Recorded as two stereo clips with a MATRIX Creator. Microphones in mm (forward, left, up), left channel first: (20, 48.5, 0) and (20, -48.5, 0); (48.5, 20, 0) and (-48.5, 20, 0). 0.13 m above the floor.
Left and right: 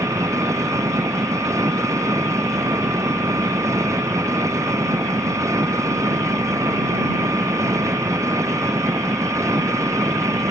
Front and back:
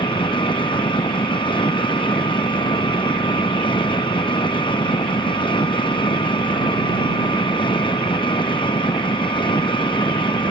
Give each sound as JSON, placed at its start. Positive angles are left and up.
{"t": 0.0, "sound": "an engine running", "azimuth_deg": -30}